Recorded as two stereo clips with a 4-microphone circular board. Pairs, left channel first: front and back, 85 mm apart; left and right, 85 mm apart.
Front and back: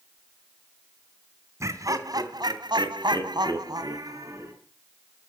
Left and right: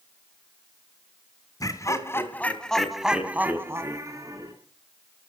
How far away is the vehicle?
No vehicle in this recording.